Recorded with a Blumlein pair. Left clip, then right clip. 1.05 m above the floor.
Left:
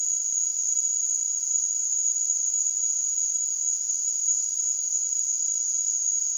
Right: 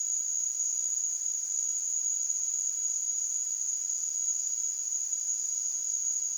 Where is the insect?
60° left, 1.0 m.